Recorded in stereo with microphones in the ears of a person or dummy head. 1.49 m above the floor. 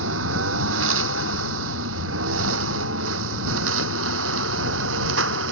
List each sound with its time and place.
0.0 s a lawn mower: 80° right; by 5.5 s 85° right